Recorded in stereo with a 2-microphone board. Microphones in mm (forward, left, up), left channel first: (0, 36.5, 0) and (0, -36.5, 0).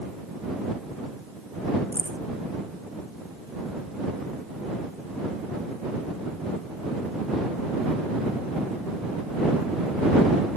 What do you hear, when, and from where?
1.9 s keys jangling: 35° right (ahead or behind)